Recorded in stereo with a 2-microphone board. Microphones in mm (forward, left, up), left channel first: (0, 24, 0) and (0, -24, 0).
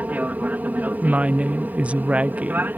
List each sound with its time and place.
0.0 s an aircraft: 35° right (ahead or behind); by 2.8 s 40° right (ahead or behind)
1.0 s a woman speaking: 25° right (ahead or behind)